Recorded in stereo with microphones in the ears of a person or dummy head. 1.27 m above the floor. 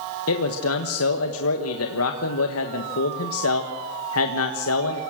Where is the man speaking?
80° left, 1.4 m.